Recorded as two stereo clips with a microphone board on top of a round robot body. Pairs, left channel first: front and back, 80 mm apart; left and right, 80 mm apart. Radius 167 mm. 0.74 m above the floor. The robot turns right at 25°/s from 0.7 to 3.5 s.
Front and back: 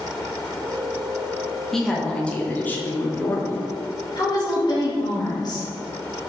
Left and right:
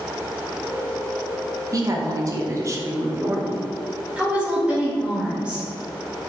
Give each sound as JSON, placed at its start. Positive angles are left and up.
{"t": 1.7, "sound": "a woman speaking", "azimuth_deg": -85, "distance_m": 1.3}
{"t": 4.2, "sound": "a woman speaking", "azimuth_deg": -15, "distance_m": 1.9}